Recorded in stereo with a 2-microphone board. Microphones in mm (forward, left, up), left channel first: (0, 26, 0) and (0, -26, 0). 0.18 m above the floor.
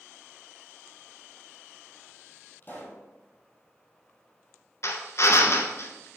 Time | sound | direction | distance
2.6 | a pop | 35° left (ahead or behind) | 1.7 m
4.8 | a drill | 60° left (ahead or behind) | 0.8 m